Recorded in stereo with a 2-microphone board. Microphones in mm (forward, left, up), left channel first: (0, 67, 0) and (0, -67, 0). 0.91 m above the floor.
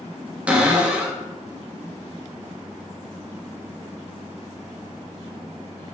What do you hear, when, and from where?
0.5 s a cupboard door: 10° right (ahead or behind), 0.7 m